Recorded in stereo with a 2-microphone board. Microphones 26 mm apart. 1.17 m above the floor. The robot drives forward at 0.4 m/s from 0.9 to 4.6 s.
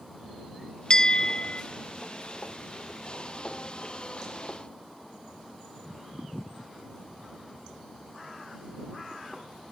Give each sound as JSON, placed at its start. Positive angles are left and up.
{"t": 0.9, "sound": "a bell", "side_deg": 35}